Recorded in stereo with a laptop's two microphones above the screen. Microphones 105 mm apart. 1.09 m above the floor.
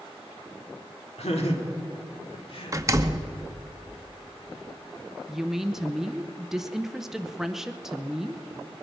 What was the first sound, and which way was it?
Laughter, 85° left.